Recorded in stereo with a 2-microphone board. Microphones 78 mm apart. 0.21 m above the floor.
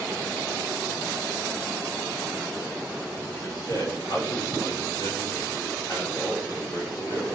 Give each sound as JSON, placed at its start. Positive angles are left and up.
{"t": 3.4, "sound": "a man speaking", "side_deg": 65, "distance_m": 4.5}